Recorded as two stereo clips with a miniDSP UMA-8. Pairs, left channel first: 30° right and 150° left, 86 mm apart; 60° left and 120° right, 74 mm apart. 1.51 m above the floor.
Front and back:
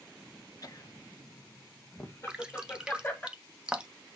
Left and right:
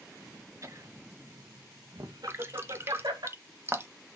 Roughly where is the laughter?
Right.